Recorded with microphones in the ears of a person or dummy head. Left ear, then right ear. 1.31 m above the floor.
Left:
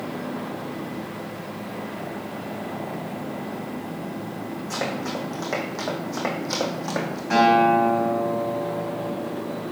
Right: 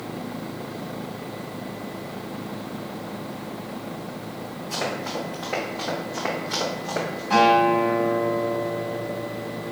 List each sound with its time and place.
4.7 s running footsteps: 45° left (ahead or behind), 3.5 m; by 7.2 s 65° left (ahead or behind), 3 m
7.3 s a guitar: 40° left (ahead or behind), 4 m